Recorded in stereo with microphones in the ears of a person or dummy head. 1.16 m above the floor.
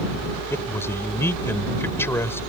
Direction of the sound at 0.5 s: 15° left (ahead or behind).